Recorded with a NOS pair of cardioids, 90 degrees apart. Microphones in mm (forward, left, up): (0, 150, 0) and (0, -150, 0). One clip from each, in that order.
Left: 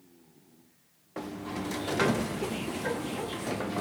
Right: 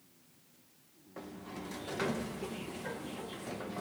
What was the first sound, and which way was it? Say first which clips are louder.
A sliding door: left 9 dB; 45° left.